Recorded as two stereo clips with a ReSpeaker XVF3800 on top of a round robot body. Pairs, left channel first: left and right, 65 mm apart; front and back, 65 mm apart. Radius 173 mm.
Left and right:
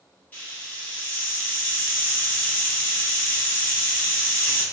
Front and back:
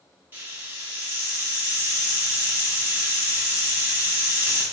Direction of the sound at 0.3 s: 140° left.